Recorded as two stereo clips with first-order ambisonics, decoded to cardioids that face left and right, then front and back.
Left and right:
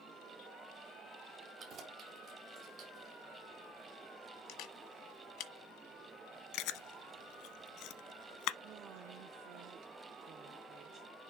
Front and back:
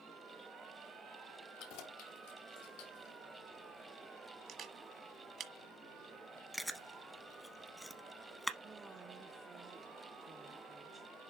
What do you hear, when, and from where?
1.6 s keys jangling: 30° right, 2 m
4.5 s a camera shutter: 125° left, 1.4 m
6.5 s chewing: 90° left, 0.6 m
8.6 s a woman speaking: 110° right, 0.8 m